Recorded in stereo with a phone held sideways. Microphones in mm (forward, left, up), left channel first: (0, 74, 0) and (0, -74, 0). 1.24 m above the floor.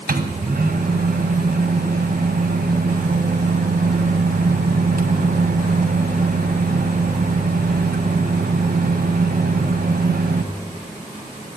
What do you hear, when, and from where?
0.1 s a microwave: 85° right, 1.1 m